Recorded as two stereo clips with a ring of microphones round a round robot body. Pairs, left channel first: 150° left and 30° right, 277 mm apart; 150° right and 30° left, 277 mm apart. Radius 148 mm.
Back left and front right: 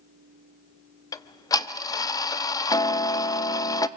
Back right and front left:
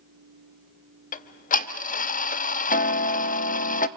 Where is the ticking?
150° right, 0.6 m.